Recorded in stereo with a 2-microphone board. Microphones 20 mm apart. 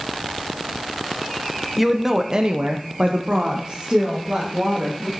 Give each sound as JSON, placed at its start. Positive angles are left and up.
{"t": 1.8, "sound": "a woman speaking", "side_deg": -10, "distance_m": 0.8}